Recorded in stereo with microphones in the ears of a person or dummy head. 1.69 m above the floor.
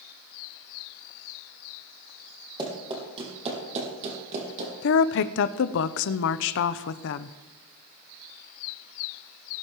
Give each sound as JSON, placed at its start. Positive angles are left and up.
{"t": 2.6, "sound": "running footsteps", "side_deg": -25, "distance_m": 4.0}
{"t": 4.8, "sound": "a woman speaking", "side_deg": 60, "distance_m": 0.6}